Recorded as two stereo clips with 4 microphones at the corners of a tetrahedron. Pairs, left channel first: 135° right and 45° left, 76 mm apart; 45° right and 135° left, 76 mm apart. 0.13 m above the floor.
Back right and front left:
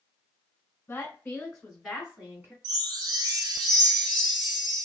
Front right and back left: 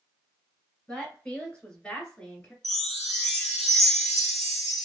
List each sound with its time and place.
0.9 s a woman speaking: 110° right, 1.3 m; by 2.5 s 25° left, 1.3 m
2.6 s a chime: 40° left, 0.9 m